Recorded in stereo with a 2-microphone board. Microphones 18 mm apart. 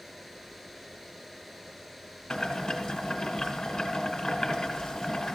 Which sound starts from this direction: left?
Boiling, at 2.3 s.